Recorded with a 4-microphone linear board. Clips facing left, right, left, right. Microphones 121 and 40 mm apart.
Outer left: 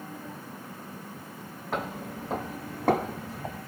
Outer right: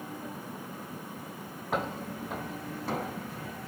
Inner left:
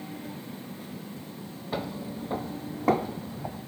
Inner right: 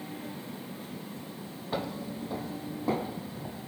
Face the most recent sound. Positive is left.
turn(degrees=75)  # may be behind; listen again after turning